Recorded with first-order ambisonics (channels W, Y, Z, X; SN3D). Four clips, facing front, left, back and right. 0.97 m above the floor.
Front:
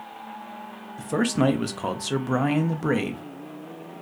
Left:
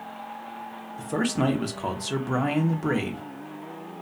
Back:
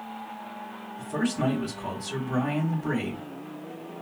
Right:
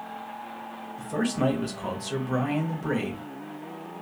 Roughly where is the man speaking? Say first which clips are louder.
Left 1 dB, front 5 dB; ahead.